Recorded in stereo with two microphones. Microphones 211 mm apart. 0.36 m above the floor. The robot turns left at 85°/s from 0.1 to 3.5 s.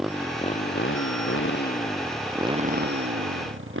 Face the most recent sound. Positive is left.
turn(degrees=-110)